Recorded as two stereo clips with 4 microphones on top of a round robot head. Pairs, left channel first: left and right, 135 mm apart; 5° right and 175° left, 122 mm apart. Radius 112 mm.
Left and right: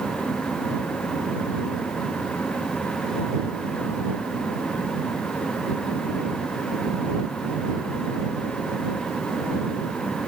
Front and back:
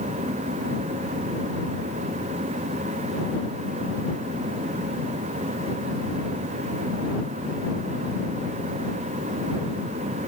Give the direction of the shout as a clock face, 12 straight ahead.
I don't hear a shout.